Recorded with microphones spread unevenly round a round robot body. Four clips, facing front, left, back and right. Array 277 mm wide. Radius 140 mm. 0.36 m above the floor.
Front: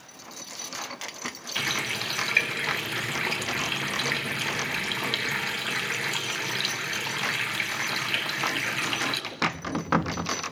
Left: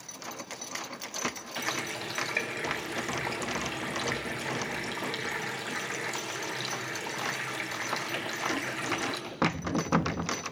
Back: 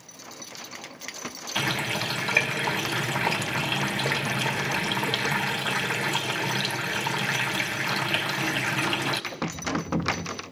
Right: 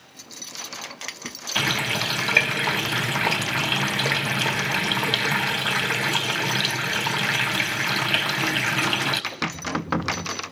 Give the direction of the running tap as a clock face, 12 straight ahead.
4 o'clock.